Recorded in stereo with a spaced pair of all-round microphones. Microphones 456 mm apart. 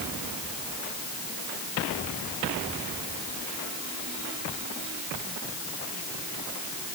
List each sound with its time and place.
Only background noise.